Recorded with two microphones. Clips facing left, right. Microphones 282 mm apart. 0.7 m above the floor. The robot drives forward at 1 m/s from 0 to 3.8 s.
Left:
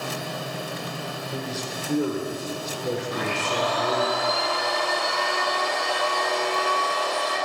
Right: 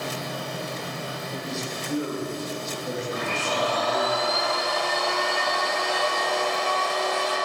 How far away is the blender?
About 4.5 m.